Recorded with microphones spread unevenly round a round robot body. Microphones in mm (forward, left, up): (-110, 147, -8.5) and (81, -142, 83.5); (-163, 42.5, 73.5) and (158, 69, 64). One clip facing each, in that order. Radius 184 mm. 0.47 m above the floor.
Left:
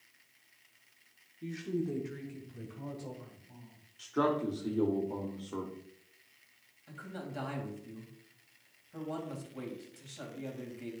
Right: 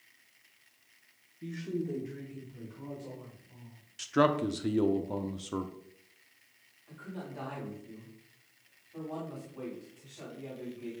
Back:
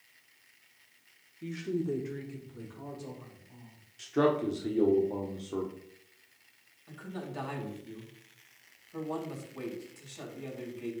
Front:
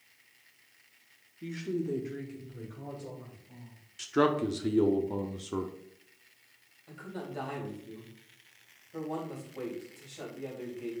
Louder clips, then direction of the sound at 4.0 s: Right 3 dB, even; 40° right.